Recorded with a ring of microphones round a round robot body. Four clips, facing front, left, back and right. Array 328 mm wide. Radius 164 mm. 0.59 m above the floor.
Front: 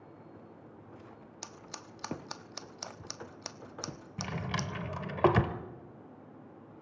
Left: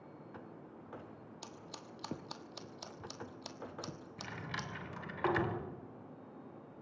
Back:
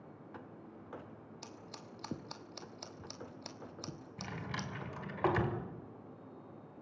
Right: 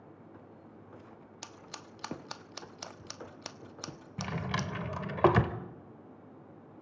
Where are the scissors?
50° right, 1.1 m.